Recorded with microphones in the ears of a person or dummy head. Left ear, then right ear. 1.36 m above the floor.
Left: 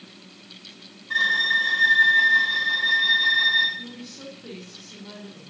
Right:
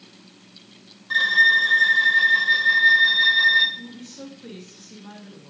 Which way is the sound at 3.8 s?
35° right (ahead or behind).